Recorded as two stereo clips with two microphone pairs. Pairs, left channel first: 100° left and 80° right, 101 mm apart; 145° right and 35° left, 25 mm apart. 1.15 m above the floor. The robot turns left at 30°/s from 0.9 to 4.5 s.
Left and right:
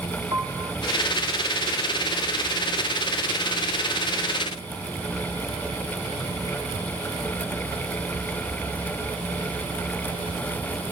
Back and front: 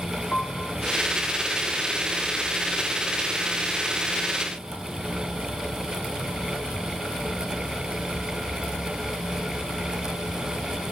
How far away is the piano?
About 2.5 m.